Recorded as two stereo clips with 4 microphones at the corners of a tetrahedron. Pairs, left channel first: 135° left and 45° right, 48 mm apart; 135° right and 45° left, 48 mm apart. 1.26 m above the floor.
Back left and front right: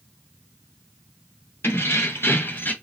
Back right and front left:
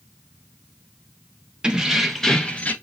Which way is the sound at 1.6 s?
115° left.